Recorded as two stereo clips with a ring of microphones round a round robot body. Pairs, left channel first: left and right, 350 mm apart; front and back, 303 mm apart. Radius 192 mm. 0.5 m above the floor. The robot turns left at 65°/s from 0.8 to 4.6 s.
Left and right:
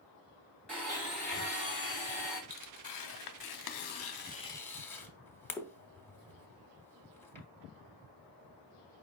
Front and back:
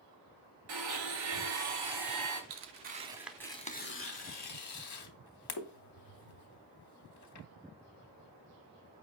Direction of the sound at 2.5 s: 145° left.